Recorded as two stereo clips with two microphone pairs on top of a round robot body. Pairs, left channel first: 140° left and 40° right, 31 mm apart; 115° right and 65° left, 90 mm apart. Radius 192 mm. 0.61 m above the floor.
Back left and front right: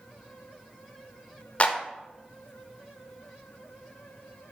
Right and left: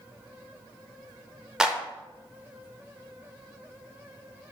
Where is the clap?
145° left, 0.8 m.